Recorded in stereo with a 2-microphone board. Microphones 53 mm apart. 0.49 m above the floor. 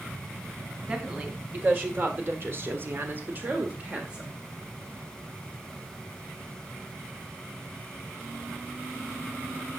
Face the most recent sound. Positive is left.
turn(degrees=-20)  # may be behind; listen again after turning